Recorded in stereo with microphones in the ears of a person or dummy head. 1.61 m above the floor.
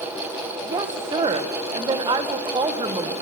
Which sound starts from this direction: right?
A woman speaking, at 0.7 s.